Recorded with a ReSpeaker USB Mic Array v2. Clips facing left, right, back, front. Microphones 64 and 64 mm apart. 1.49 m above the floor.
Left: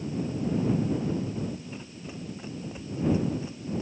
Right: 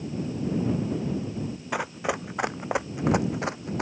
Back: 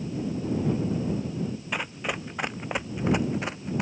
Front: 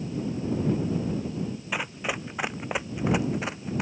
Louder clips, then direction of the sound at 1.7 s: Right 12 dB, front 2 dB; 85° right.